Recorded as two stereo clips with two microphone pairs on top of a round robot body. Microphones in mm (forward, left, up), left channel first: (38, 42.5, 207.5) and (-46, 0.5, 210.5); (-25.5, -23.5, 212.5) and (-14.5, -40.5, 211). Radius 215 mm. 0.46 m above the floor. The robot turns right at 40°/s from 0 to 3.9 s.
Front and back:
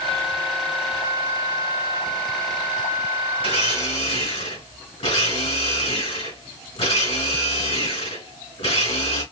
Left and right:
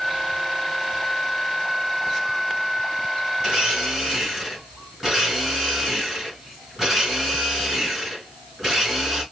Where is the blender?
15° left, 3.5 m; by 9.2 s 35° left, 3.5 m.